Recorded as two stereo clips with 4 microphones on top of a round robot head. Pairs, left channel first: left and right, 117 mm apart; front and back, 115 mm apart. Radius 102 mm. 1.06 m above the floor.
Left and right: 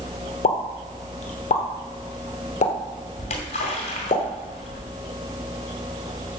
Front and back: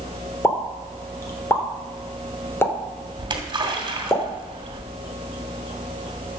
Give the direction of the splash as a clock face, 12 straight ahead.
8 o'clock.